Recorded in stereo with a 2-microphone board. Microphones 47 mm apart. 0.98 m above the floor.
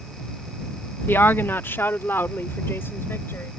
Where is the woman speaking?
50° left (ahead or behind); by 3.5 s 55° left (ahead or behind).